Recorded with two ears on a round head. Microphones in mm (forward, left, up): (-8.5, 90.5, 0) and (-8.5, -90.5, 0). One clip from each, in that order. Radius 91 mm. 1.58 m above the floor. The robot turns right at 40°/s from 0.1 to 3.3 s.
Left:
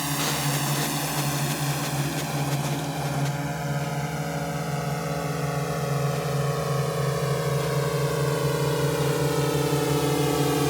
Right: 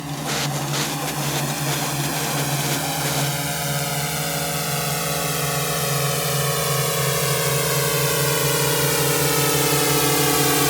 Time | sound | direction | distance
0.0 | a drone | 45° left (ahead or behind) | ?